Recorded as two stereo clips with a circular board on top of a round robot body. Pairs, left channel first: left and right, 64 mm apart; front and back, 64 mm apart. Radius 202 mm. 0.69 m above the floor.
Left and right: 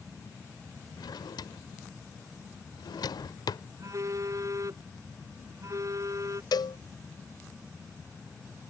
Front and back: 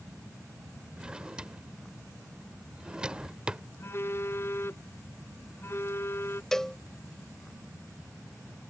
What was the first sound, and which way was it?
A drawer, 105° left.